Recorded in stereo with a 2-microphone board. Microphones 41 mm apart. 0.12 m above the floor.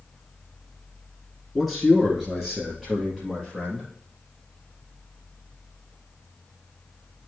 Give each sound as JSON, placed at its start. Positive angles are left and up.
{"t": 1.6, "sound": "a man speaking", "side_deg": 0, "distance_m": 1.3}